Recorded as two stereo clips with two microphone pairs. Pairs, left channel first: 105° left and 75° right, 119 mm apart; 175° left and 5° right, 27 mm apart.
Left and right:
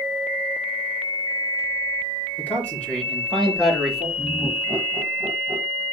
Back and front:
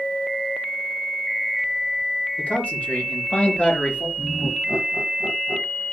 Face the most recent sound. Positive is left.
turn(degrees=-155)